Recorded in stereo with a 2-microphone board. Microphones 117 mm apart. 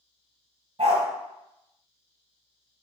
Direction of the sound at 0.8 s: 60° right (ahead or behind).